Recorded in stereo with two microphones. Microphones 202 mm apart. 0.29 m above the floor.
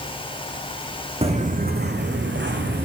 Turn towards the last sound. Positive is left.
turn(degrees=-70)  # may be behind; listen again after turning